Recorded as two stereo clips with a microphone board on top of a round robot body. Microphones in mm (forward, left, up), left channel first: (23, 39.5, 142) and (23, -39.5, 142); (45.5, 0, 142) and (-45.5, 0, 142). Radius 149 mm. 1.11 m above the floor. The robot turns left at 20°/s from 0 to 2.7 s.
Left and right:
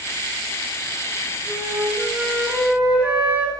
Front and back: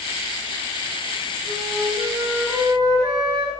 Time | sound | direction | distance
1.4 | a flute | 140° right | 7 m